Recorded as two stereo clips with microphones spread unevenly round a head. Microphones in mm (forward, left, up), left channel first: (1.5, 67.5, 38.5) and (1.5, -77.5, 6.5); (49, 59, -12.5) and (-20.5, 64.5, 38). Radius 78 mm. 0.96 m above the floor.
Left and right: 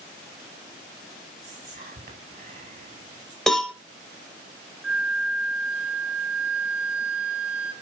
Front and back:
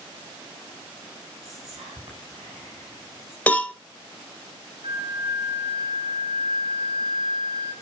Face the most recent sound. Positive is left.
turn(degrees=-175)